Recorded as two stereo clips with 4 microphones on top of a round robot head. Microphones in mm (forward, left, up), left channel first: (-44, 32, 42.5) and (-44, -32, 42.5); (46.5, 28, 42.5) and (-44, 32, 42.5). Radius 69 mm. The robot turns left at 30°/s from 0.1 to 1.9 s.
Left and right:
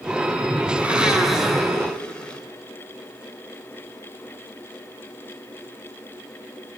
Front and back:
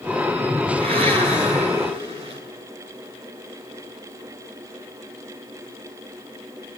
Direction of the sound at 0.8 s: 160° right.